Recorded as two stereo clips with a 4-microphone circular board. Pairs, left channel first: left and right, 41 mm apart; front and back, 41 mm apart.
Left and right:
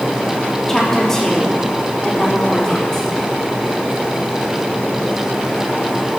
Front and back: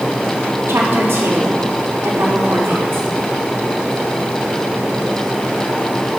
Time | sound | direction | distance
0.7 | a woman speaking | 165° left | 3.5 m